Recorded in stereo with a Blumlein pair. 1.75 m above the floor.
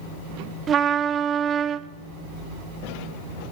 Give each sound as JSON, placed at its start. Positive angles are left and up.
{"t": 0.7, "sound": "a trumpet", "azimuth_deg": -25, "distance_m": 0.5}